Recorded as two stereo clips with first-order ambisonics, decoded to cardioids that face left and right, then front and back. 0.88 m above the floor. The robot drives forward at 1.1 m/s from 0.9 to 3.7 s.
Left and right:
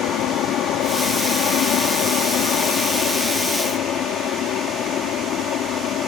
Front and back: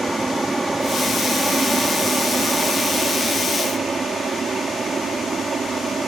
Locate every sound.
0.0 s an aircraft: 105° left; by 6.1 s 115° left